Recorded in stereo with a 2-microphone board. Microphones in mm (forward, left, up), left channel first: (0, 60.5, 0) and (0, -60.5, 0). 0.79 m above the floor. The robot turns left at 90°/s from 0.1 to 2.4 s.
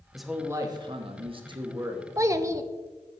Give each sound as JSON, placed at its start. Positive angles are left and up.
{"t": 0.1, "sound": "a man speaking", "azimuth_deg": 5, "distance_m": 1.1}
{"t": 2.2, "sound": "a child speaking", "side_deg": -25, "distance_m": 0.5}